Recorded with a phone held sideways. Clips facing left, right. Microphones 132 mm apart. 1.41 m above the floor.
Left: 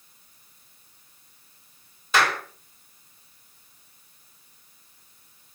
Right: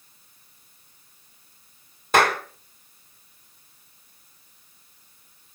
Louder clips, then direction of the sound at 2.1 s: Right 4 dB; 50° right (ahead or behind).